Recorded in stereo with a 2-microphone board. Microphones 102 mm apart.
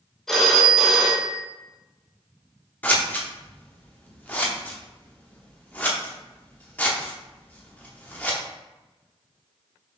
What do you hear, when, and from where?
0.3 s a phone ringing: 5° left (ahead or behind), 0.7 m
2.8 s scissors: 15° left (ahead or behind), 0.6 m